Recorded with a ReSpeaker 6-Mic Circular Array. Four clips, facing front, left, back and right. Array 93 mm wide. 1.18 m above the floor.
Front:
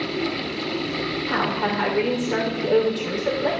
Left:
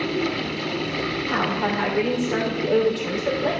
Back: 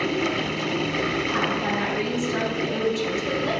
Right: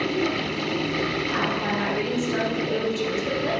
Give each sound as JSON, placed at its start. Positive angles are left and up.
{"t": 1.3, "sound": "a woman speaking", "azimuth_deg": 25, "distance_m": 4.5}